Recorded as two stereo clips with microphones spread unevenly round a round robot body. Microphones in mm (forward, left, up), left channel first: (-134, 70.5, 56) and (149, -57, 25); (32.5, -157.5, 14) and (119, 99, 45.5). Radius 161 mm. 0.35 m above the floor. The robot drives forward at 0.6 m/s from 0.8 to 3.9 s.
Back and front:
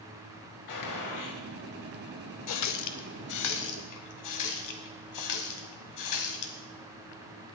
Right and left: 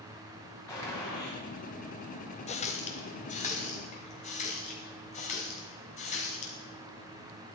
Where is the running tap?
170° right, 0.9 m; by 6.5 s 175° right, 1.7 m.